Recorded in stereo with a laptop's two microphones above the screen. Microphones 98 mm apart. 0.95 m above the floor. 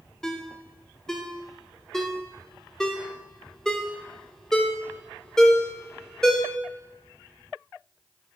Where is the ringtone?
5° left (ahead or behind), 0.7 m.